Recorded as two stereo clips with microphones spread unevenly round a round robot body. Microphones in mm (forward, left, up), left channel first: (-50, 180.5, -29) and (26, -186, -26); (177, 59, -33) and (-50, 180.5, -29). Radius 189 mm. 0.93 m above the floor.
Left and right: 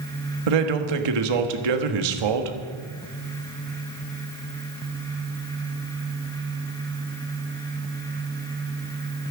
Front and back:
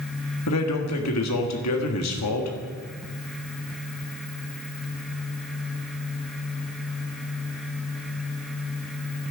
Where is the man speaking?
65° right, 1.5 m.